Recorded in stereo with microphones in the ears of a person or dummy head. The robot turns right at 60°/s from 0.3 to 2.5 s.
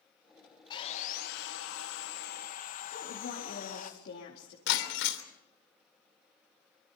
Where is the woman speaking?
55° left (ahead or behind), 3.5 m.